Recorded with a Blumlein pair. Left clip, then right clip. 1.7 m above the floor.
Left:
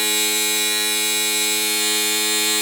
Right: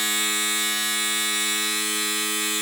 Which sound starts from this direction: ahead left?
A machine running, at 0.0 s.